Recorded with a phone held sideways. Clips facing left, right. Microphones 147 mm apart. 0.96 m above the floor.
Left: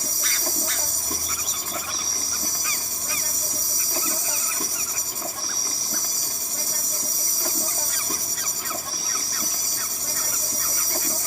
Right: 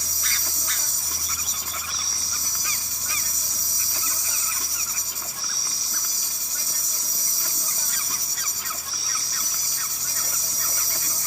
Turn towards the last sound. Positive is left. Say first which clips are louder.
# left 6 dB
turn(degrees=55)  # may be behind; listen again after turning